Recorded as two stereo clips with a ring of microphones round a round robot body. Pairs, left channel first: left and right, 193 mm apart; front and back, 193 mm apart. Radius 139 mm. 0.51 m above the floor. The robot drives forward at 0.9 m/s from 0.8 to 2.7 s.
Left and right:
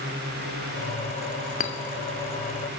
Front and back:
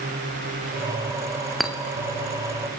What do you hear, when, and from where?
1.6 s a clink: 90° left, 0.7 m; by 1.8 s 110° left, 0.7 m